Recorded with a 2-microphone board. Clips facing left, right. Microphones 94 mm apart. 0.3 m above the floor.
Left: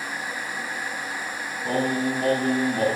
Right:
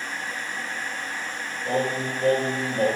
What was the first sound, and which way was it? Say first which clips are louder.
Singing: left 2 dB; 35° left (ahead or behind).